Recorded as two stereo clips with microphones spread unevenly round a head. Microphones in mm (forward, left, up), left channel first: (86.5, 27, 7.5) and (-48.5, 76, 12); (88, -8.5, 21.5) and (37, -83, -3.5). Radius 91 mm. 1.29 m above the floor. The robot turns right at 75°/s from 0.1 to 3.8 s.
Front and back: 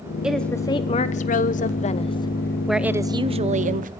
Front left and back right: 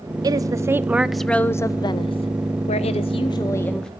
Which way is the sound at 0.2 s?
115° right.